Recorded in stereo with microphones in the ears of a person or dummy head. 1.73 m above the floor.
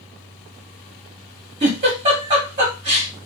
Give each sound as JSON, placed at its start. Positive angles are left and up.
{"t": 1.6, "sound": "a giggle", "side_deg": -20, "distance_m": 1.2}